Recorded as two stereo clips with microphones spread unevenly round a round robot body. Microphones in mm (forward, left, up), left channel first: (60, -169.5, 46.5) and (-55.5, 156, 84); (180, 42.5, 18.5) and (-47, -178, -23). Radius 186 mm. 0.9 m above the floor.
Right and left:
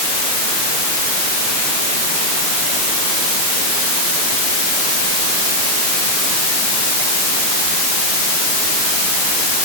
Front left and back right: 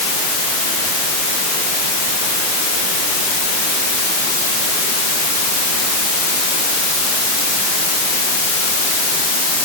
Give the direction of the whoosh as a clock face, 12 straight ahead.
No whoosh in this recording.